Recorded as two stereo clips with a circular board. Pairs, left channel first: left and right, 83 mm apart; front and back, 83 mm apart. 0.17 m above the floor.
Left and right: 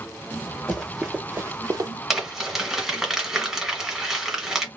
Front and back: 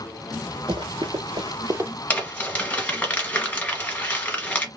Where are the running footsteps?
Straight behind, 1.5 m; by 1.9 s 125° right, 0.9 m.